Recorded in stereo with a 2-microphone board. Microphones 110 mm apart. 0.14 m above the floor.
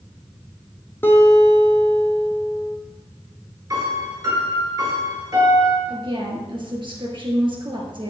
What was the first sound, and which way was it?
A guitar, 20° left (ahead or behind).